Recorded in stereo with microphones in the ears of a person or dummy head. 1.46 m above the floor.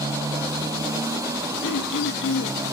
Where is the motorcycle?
15° right (ahead or behind).